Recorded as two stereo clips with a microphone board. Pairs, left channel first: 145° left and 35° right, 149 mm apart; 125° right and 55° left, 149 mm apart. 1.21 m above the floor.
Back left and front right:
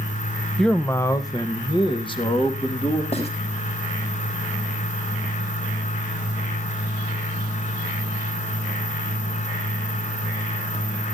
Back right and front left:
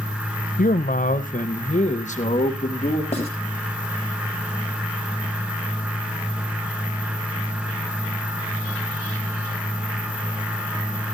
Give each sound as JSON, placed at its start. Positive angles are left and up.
{"t": 0.6, "sound": "a man speaking", "azimuth_deg": -125, "distance_m": 0.6}
{"t": 3.1, "sound": "writing", "azimuth_deg": -170, "distance_m": 4.5}